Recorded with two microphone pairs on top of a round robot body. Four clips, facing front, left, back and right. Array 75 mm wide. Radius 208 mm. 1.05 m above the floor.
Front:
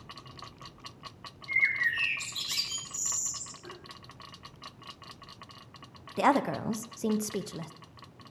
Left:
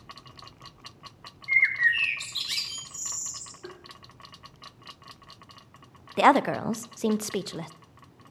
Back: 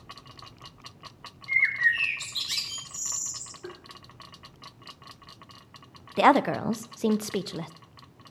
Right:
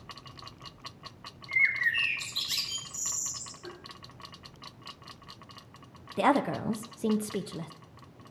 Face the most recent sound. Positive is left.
turn(degrees=115)